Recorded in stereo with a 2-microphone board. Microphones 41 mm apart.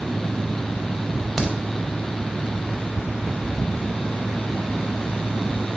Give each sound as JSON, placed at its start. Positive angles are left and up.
{"t": 1.4, "sound": "a crack", "side_deg": 5, "distance_m": 0.6}